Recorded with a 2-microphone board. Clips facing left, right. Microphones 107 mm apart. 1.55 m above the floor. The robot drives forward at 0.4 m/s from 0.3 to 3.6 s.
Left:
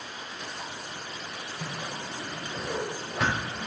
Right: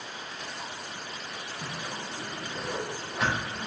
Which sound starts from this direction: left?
A whoosh, at 1.6 s.